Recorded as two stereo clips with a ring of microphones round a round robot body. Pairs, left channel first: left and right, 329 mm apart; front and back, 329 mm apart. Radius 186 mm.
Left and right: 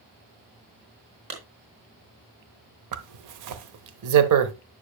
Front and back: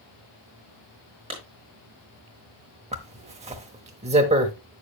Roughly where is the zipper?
Right.